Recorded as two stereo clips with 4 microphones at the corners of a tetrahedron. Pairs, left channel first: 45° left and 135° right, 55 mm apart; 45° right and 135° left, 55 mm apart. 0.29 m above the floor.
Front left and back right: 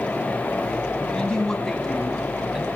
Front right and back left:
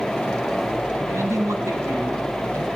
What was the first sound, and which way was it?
A man speaking, 115° left.